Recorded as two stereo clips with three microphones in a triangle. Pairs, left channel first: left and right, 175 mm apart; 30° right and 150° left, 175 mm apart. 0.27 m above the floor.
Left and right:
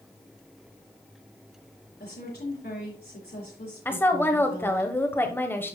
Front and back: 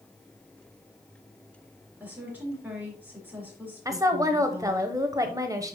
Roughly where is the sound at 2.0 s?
Left.